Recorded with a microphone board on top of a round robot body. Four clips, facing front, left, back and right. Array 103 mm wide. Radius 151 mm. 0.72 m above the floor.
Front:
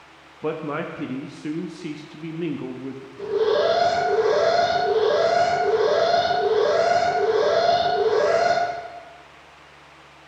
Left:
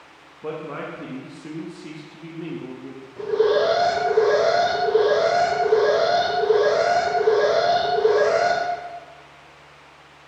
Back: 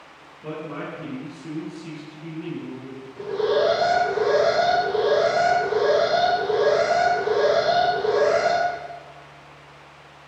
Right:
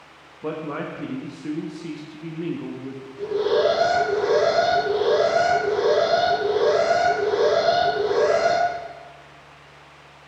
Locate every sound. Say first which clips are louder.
0.4 s a man speaking: right 2 dB, front 5 dB; 10° right, 0.9 m
3.2 s an alarm: left 2 dB, front 1 dB; 105° left, 3 m